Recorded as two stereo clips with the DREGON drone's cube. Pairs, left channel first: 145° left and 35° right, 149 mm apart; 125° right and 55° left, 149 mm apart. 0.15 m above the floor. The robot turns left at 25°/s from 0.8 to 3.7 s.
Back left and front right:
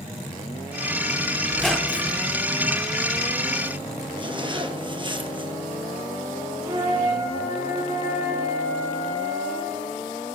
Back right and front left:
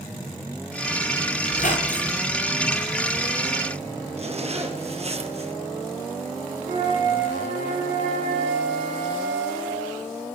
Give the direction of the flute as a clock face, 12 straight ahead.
11 o'clock.